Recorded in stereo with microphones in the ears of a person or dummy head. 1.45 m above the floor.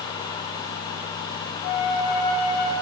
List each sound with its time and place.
1.6 s a flute: 70° left (ahead or behind), 1.8 m